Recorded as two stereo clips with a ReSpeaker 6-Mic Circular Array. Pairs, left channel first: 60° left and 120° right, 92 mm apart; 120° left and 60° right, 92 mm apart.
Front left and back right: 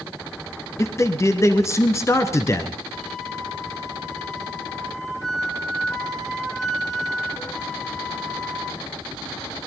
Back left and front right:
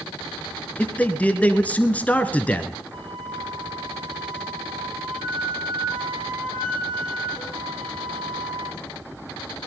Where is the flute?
25° right, 1.6 m.